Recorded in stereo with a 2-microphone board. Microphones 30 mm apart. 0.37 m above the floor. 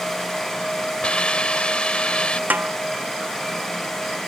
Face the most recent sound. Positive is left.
turn(degrees=-75)  # may be behind; listen again after turning